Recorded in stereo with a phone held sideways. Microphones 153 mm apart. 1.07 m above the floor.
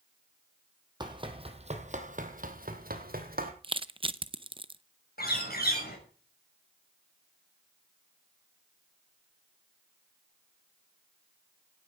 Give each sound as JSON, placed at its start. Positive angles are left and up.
{"t": 1.0, "sound": "running footsteps", "side_deg": -25, "distance_m": 2.5}
{"t": 3.6, "sound": "crushing", "side_deg": -35, "distance_m": 0.6}
{"t": 5.2, "sound": "a bird", "side_deg": 80, "distance_m": 6.5}